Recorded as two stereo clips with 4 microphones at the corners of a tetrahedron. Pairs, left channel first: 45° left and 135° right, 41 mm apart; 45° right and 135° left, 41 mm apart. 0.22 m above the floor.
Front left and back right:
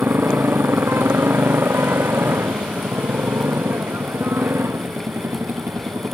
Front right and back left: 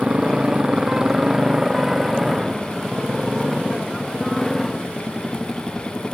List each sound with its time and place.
0.0 s a motorcycle: 160° right; by 6.1 s 120° right